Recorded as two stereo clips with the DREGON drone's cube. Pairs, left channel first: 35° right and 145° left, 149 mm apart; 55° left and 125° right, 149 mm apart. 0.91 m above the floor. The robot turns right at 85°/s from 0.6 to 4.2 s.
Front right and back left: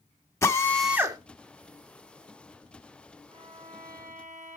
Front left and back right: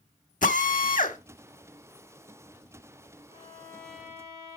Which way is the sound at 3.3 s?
90° left.